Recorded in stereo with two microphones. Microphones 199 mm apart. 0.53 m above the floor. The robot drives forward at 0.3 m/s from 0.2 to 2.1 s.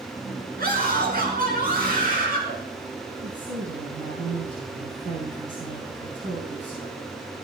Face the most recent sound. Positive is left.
turn(degrees=-80)